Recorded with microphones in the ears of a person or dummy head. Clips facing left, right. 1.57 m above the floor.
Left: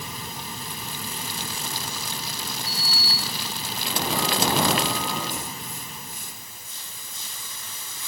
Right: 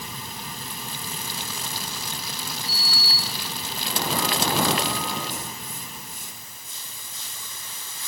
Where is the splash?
I don't hear a splash.